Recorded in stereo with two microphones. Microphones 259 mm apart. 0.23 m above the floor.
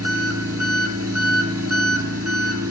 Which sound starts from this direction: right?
An engine running, at 0.0 s.